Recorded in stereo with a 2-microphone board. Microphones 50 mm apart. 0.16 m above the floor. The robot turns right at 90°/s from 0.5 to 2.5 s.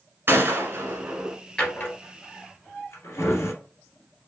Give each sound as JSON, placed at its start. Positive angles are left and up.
{"t": 0.3, "sound": "a gunshot", "side_deg": -50, "distance_m": 1.1}
{"t": 1.6, "sound": "a drawer", "side_deg": 15, "distance_m": 1.6}